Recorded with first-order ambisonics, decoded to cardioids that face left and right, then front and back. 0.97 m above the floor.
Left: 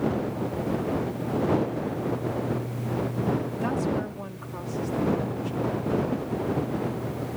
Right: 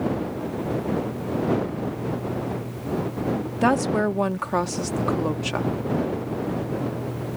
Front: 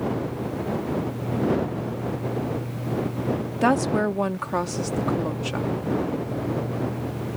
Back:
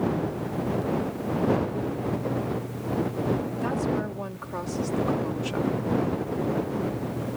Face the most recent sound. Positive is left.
turn(degrees=-80)